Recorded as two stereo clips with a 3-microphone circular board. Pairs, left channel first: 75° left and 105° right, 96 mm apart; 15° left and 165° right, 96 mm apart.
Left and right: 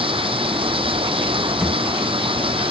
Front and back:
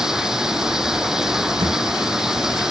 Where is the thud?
170° left.